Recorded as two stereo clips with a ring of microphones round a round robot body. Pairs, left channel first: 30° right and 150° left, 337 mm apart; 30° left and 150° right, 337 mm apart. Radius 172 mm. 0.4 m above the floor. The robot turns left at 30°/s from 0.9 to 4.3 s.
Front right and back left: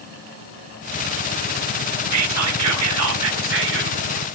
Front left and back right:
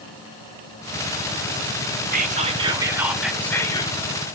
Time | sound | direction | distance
2.1 | whispering | 155° left | 1.1 m